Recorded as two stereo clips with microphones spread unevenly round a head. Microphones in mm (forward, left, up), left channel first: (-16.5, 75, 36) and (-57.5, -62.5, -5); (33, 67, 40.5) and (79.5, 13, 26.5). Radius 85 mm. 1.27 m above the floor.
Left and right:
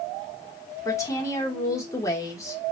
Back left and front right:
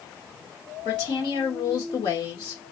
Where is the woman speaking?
145° left, 1.5 m.